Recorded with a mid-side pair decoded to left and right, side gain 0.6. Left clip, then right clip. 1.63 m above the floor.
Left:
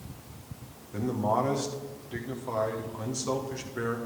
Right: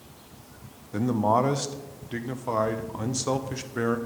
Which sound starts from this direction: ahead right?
A man speaking, at 0.9 s.